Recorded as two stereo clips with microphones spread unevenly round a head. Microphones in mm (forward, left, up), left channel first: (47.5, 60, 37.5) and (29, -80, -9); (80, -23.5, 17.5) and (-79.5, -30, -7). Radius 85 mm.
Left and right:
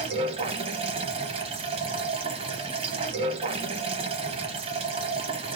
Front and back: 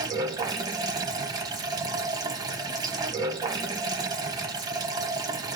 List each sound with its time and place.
0.0 s running water: 135° right, 0.8 m